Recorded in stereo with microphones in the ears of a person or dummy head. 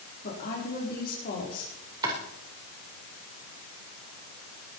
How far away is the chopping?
About 5 m.